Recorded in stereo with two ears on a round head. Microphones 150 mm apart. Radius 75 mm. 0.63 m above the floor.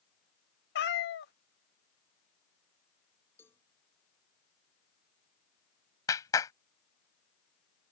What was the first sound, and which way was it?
A cat meowing, 70° left (ahead or behind).